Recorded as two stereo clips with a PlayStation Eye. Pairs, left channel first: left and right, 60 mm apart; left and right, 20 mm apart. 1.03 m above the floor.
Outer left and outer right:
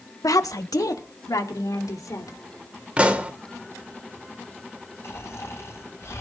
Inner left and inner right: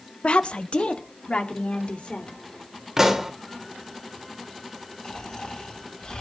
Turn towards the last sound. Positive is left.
turn(degrees=50)  # may be behind; listen again after turning